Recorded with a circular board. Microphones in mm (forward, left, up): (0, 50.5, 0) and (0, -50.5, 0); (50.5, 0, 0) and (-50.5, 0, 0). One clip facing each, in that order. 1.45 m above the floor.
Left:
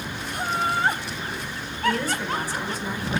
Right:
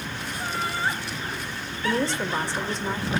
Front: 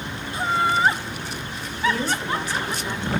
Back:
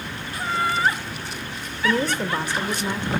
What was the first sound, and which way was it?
Laughter, 65° left.